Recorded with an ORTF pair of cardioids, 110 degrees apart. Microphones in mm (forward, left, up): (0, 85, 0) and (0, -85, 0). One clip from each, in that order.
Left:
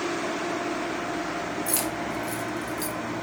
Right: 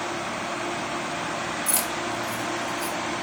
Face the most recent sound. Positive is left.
turn(degrees=45)